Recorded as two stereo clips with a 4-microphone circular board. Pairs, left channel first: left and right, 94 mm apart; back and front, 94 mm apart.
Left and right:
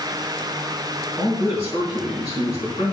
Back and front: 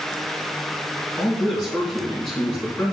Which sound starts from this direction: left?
A man speaking, at 1.2 s.